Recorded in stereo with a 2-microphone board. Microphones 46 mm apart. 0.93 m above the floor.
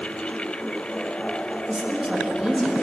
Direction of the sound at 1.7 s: 5° right (ahead or behind).